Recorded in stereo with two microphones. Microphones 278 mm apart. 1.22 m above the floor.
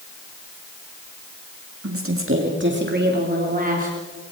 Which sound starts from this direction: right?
A woman speaking, at 1.8 s.